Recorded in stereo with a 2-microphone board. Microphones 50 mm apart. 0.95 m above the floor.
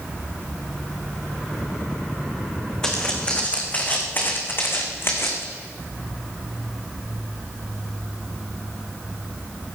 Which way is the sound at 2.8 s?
15° left (ahead or behind).